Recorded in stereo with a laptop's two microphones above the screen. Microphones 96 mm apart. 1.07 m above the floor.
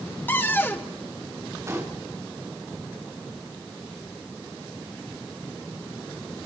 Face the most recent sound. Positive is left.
turn(degrees=-30)  # may be behind; listen again after turning